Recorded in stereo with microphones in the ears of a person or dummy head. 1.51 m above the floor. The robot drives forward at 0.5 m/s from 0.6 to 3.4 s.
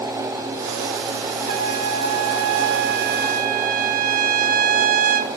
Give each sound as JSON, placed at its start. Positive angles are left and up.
{"t": 1.5, "sound": "a trumpet", "side_deg": -65, "distance_m": 0.9}